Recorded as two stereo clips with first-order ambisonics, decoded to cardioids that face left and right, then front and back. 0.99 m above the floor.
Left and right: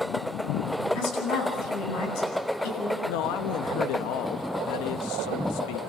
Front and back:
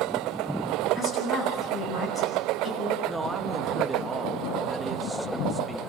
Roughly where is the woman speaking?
Left.